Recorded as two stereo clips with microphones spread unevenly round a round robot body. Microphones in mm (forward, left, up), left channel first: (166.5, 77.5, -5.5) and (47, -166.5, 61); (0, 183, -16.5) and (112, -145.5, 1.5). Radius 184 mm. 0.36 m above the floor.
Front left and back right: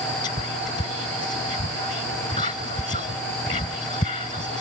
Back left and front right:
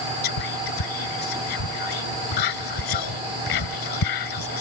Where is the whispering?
140° left.